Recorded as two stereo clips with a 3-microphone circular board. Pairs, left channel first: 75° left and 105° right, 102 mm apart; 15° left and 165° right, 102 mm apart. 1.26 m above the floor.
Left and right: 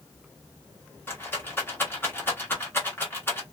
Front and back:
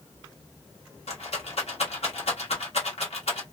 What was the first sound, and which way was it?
A rattle, 5° left.